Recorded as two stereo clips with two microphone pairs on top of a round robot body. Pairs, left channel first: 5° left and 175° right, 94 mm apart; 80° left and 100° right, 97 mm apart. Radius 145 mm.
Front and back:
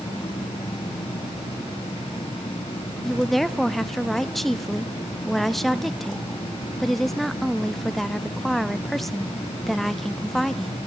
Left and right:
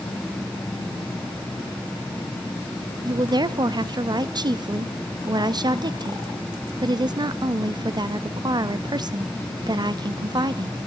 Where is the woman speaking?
80° right, 0.9 m.